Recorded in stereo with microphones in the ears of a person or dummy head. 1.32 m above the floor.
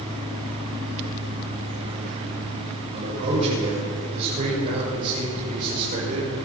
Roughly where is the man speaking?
Right.